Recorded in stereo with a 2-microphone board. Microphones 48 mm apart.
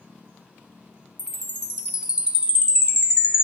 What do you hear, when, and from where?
1.2 s a chime: 25° right (ahead or behind), 1.0 m